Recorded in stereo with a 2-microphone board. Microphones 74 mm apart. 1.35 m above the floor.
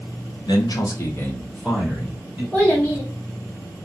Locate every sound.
0.5 s a man speaking: 75° left (ahead or behind), 0.9 m; by 2.4 s 15° right (ahead or behind), 1.7 m
2.5 s a child speaking: 20° left (ahead or behind), 1.2 m